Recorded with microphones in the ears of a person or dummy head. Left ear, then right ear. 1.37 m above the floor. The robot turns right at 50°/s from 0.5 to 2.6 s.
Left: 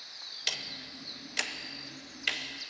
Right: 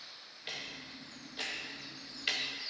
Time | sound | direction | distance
0.5 | ticking | 70° left (ahead or behind) | 0.6 m